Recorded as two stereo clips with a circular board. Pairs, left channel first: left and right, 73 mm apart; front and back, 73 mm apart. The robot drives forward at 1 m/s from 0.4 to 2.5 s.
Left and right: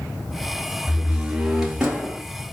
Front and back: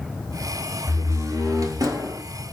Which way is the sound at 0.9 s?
160° right.